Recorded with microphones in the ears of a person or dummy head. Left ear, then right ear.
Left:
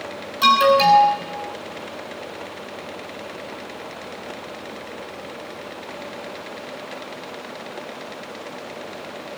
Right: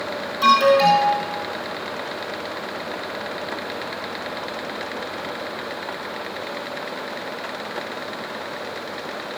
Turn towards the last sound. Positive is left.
turn(degrees=15)  # may be behind; listen again after turning